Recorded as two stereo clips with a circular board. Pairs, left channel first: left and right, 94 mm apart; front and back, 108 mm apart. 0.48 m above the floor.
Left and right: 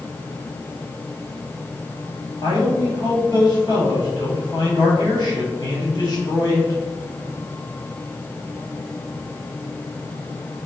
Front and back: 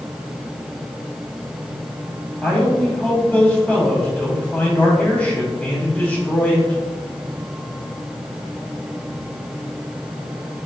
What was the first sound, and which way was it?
A man speaking, 75° left.